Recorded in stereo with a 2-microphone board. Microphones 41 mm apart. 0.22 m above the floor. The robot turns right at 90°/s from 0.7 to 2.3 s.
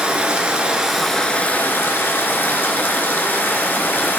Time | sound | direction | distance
0.0 | running water | 30° right | 1.0 m